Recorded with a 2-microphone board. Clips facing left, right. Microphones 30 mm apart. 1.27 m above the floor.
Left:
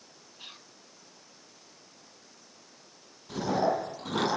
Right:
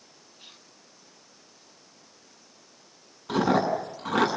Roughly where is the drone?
No drone in this recording.